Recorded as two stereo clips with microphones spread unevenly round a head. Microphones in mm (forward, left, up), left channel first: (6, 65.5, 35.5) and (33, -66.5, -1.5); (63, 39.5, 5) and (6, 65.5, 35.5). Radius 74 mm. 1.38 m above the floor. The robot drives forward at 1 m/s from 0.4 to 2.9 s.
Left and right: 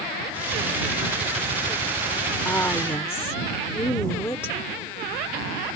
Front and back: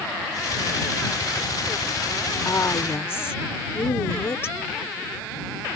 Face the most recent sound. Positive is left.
turn(degrees=25)